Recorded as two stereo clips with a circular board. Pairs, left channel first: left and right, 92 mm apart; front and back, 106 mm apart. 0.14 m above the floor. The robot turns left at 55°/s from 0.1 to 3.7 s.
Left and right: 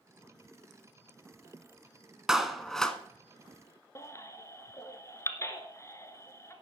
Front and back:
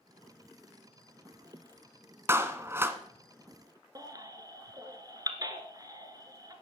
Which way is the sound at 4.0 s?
140° left.